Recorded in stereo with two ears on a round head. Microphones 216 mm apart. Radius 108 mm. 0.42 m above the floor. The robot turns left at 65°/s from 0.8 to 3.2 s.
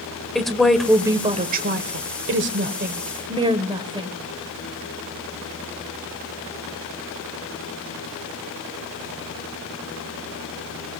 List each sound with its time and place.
0.3 s a woman speaking: straight ahead, 1.3 m; by 4.1 s 155° right, 1.3 m